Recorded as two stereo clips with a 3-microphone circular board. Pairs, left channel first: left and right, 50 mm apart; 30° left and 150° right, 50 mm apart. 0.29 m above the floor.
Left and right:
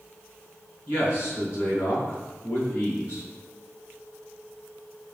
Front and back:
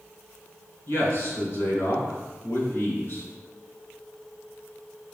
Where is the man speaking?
60° left, 3.5 m.